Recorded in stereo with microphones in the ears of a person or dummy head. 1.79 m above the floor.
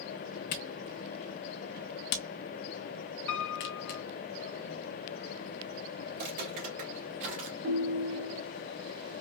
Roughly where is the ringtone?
Right.